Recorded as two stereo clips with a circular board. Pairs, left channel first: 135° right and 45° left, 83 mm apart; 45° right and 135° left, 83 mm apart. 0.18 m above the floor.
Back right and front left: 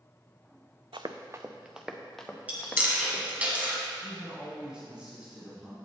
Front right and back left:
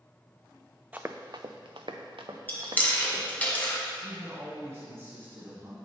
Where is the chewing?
5° right, 1.6 m.